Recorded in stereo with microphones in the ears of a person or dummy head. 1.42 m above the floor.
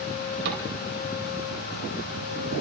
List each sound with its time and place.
0.5 s a cupboard door: 65° right (ahead or behind), 3 m